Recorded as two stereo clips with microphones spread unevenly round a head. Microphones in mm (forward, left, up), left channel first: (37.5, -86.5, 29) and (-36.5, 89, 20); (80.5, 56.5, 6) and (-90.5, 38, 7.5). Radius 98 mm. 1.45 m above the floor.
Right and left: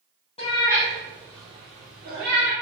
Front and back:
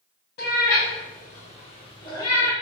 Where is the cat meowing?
10° right, 1.1 m; by 2.5 s 80° left, 1.4 m.